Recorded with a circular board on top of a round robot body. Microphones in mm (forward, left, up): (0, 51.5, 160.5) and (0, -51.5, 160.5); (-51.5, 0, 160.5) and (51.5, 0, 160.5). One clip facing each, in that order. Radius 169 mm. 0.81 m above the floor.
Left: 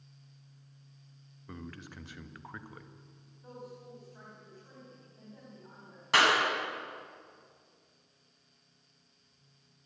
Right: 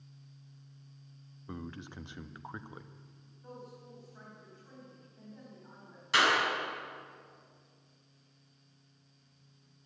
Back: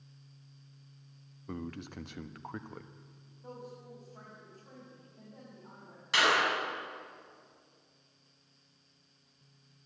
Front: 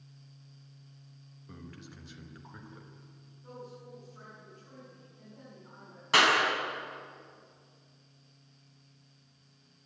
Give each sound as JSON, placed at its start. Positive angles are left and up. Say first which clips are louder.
{"t": 1.5, "sound": "a man speaking", "louder": "right 2 dB, back 8 dB", "azimuth_deg": -155, "distance_m": 1.2}
{"t": 3.4, "sound": "a woman speaking", "louder": "left 2 dB, even", "azimuth_deg": 175, "distance_m": 6.5}
{"t": 6.1, "sound": "a clap", "louder": "left 2 dB, front 3 dB", "azimuth_deg": 45, "distance_m": 6.5}